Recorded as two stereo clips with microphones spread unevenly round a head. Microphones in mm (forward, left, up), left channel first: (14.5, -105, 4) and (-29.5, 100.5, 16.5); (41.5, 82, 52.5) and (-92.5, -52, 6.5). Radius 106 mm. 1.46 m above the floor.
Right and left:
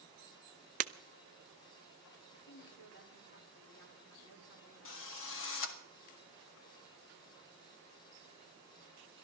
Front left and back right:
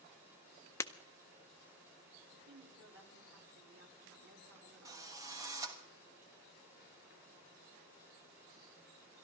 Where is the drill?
55° right, 1.2 m.